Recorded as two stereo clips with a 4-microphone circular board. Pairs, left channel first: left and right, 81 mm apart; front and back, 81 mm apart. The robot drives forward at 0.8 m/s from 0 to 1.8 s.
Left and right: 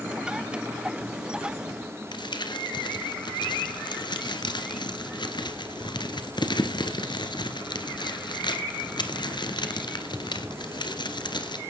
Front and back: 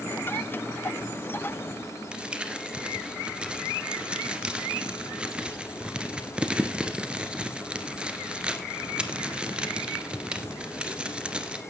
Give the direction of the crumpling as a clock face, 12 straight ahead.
9 o'clock.